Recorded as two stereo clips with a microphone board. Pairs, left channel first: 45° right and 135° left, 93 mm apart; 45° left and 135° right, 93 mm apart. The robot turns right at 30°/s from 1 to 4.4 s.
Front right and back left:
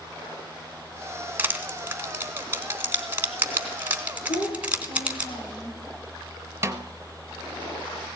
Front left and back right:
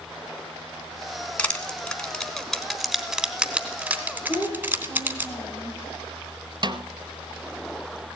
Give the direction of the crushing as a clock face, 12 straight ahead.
9 o'clock.